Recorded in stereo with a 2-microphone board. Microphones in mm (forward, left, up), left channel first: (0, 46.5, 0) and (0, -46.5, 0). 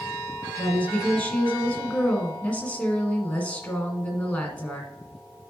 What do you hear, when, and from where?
0.6 s a woman speaking: 15° left (ahead or behind), 1.6 m